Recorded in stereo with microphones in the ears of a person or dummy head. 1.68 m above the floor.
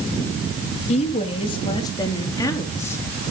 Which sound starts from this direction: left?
A woman speaking, at 0.9 s.